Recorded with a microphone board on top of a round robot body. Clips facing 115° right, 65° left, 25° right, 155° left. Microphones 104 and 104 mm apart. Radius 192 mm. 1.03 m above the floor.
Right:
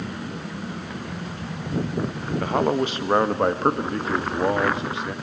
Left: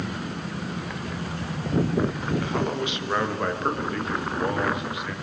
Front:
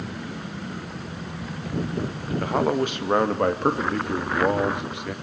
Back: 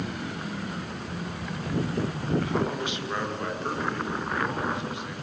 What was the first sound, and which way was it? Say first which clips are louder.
A man speaking: right 9 dB, front 6 dB; 65° right.